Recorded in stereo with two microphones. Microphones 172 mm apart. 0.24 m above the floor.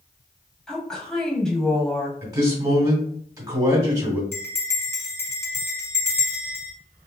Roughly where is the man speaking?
Centre.